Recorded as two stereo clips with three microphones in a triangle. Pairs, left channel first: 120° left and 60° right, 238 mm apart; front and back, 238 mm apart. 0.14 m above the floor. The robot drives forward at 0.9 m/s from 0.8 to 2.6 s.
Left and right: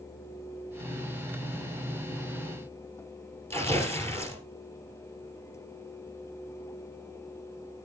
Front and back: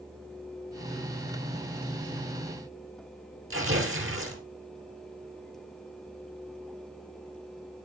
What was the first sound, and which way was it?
Tearing paper, 160° right.